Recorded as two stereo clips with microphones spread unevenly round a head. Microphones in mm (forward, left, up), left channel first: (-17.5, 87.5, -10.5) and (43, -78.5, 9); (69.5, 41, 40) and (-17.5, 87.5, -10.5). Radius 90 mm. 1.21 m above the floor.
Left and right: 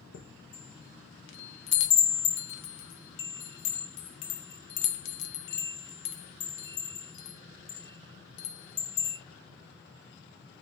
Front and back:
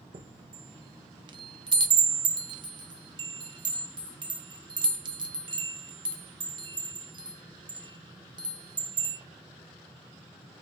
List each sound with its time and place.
0.1 s a chime: 95° left, 0.7 m